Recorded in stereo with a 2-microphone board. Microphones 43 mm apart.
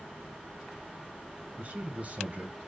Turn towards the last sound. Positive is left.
turn(degrees=-35)  # may be behind; listen again after turning